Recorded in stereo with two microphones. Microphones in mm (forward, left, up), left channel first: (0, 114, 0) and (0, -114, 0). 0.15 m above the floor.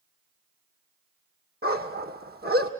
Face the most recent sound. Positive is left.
turn(degrees=-45)  # may be behind; listen again after turning